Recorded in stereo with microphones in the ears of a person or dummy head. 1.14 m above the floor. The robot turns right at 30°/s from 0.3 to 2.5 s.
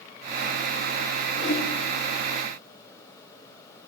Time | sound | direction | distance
1.4 | a whoosh | 75° left (ahead or behind) | 2 m